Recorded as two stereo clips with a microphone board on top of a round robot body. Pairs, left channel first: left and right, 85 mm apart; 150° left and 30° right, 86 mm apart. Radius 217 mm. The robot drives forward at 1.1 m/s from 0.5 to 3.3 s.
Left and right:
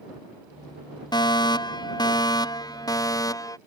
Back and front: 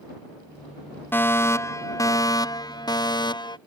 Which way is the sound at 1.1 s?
90° left.